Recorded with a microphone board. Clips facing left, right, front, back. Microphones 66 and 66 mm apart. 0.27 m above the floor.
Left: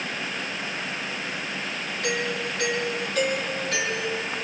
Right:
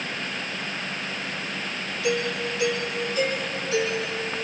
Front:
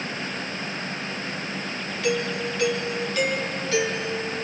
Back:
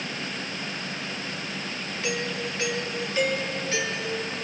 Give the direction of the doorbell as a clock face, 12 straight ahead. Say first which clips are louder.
Right 2 dB, front 5 dB; 8 o'clock.